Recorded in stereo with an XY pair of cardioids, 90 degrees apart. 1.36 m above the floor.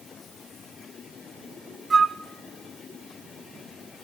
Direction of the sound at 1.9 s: 40° right.